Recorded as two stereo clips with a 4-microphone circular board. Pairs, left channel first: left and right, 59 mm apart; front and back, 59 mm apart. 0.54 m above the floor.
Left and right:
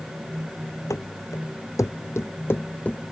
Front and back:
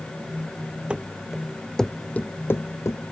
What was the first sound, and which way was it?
Running footsteps, 110° left.